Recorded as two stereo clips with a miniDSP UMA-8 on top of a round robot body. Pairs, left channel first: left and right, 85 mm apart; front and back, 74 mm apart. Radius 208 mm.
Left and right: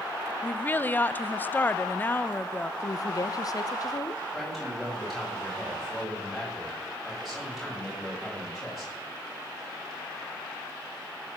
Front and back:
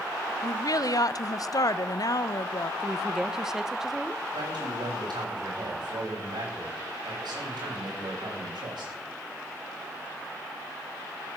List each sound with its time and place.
0.4 s a woman speaking: 25° left, 0.8 m
2.8 s a woman speaking: 95° left, 1.2 m
4.3 s a man speaking: straight behind, 8 m